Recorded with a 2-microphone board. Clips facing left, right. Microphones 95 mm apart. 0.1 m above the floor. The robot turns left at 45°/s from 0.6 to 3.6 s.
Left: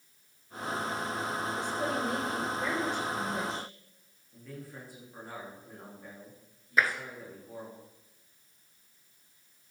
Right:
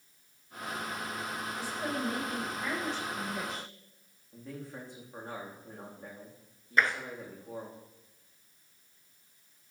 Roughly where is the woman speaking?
Behind left.